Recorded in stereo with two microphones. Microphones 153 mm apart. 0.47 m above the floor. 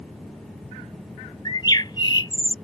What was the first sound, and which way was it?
A bird, 30° left (ahead or behind).